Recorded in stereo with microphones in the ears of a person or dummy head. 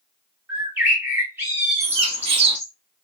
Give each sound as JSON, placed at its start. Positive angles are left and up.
{"t": 0.5, "sound": "a bird", "side_deg": -15, "distance_m": 1.2}
{"t": 1.8, "sound": "a bird", "side_deg": -35, "distance_m": 3.0}